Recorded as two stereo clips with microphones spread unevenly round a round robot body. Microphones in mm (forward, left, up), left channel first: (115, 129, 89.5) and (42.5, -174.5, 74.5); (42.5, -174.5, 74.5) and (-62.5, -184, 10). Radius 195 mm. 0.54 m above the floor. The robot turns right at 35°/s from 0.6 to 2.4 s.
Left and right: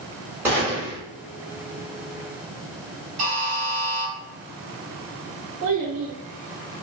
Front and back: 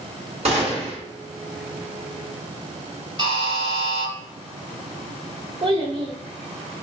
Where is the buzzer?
125° right, 2 m.